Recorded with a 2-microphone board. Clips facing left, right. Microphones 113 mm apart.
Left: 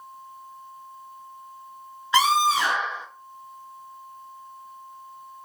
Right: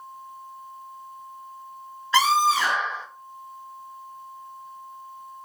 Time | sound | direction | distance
2.1 | a scream | 15° left (ahead or behind) | 1.2 m